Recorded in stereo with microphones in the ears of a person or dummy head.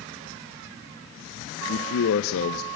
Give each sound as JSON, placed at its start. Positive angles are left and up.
{"t": 1.7, "sound": "a man speaking", "side_deg": 70, "distance_m": 0.9}